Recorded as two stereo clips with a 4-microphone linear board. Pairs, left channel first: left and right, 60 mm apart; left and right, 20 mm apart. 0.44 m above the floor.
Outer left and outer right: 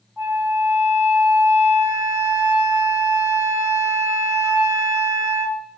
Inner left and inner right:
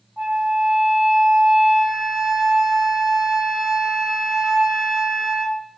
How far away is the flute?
About 1.8 m.